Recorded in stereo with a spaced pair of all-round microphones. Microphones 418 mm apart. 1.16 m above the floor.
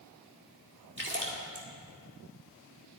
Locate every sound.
1.0 s a splash: 25° right (ahead or behind), 2 m